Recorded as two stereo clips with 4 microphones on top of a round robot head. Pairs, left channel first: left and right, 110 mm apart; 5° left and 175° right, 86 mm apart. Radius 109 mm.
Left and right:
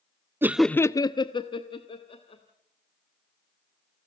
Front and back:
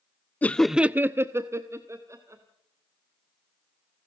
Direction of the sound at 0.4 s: 45° right.